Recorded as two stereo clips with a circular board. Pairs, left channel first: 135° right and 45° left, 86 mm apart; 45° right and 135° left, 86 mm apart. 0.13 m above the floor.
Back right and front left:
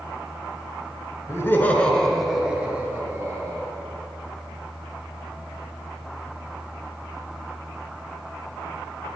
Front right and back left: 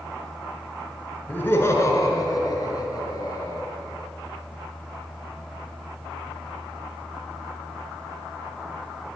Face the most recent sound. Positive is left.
turn(degrees=-10)